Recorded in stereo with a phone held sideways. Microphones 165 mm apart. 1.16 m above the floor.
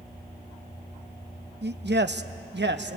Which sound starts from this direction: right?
A man speaking, at 1.6 s.